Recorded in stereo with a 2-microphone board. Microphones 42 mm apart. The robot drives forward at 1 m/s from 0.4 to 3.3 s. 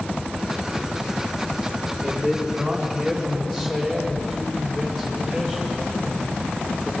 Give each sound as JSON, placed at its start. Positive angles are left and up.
{"t": 2.0, "sound": "a man speaking", "side_deg": 5, "distance_m": 4.0}